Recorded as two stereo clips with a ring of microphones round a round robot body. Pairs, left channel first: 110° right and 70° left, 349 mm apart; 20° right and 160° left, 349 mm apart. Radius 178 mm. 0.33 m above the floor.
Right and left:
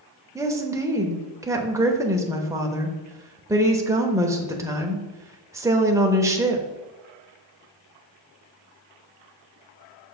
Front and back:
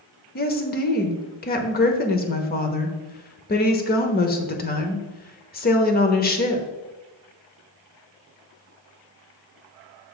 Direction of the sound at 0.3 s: 5° right.